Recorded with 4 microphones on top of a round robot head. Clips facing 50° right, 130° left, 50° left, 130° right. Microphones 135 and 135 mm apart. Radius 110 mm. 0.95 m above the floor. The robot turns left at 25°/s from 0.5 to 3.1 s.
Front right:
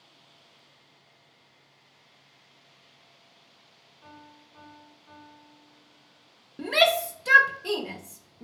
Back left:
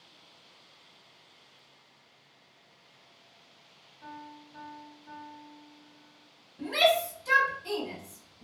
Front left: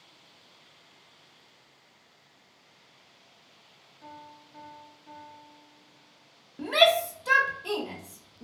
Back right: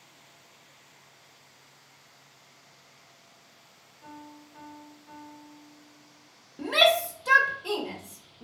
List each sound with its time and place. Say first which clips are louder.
4.0 s a piano: back left 5 dB, back right 1 dB; 80° left, 1.9 m
6.6 s a shout: front right 2 dB, front left 1 dB; 40° right, 0.6 m